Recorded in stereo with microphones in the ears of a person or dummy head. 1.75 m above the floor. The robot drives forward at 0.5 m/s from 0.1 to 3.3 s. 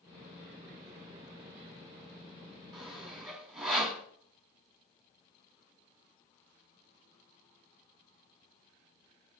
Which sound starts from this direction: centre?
Sawing, at 2.7 s.